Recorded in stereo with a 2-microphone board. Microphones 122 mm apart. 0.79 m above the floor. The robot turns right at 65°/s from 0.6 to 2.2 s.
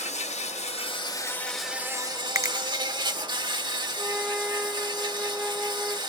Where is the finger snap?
20° right (ahead or behind), 0.5 m.